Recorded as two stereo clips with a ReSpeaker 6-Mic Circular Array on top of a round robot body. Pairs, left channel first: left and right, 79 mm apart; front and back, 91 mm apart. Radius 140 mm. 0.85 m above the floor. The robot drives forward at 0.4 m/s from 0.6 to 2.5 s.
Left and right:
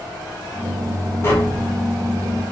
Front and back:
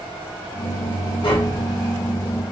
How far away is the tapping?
About 0.9 m.